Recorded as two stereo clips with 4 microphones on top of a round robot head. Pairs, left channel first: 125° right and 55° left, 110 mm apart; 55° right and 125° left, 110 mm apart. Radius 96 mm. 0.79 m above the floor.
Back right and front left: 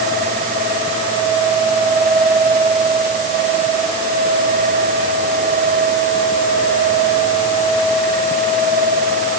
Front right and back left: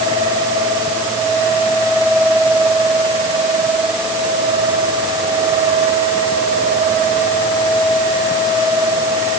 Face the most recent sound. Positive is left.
No sound to turn to.